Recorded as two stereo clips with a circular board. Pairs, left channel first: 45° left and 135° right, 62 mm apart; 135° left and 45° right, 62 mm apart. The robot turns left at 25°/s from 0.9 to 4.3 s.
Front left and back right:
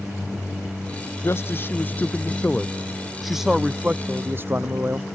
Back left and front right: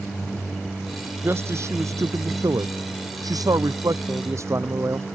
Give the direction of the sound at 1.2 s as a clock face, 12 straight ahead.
12 o'clock.